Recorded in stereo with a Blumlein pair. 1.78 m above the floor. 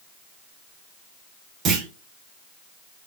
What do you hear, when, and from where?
1.6 s a clunk: 30° right, 0.7 m